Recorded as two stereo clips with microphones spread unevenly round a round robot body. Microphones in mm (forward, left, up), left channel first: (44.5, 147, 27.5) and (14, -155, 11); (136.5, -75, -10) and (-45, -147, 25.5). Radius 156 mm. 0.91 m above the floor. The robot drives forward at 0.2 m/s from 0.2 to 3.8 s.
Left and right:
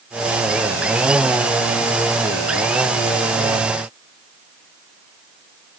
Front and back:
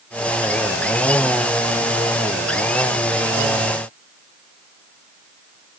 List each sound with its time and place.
Only background noise.